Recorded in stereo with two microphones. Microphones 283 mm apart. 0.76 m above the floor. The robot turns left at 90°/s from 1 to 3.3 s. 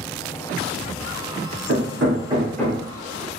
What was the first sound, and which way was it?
Hammering, 75° right (ahead or behind).